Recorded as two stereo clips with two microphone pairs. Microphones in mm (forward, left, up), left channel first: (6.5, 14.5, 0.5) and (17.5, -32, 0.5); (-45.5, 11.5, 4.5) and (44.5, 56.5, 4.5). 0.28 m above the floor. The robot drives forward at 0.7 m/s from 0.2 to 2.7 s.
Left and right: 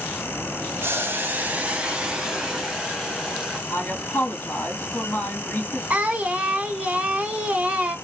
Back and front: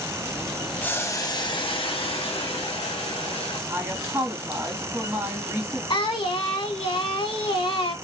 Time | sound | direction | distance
0.8 | boiling | 80° right | 0.7 m
3.7 | a woman speaking | 95° left | 1.5 m
5.9 | singing | 130° right | 0.8 m